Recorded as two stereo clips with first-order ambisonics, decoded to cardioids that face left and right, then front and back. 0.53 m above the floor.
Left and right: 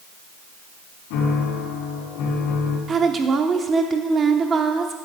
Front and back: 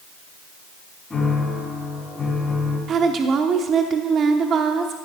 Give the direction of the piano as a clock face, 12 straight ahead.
9 o'clock.